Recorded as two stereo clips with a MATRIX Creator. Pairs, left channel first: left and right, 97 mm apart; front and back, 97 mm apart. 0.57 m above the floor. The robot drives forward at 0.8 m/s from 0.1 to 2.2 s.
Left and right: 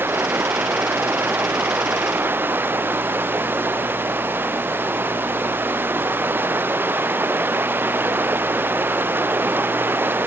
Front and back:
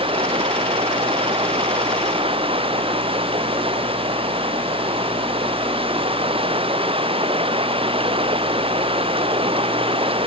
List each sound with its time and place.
0.0 s running water: 160° right